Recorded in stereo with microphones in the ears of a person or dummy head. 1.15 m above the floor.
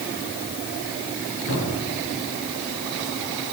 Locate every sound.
1.5 s a cupboard door: 80° left, 5.5 m